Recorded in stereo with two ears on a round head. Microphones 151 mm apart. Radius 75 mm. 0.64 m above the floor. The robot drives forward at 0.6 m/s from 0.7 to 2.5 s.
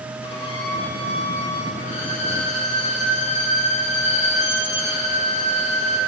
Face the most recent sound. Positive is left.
turn(degrees=40)  # may be behind; listen again after turning